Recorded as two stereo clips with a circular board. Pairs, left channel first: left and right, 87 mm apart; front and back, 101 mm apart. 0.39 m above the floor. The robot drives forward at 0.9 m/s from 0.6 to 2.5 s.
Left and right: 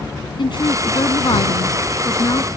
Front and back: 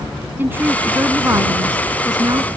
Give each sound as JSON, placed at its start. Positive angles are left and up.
{"t": 0.4, "sound": "a woman speaking", "azimuth_deg": 110}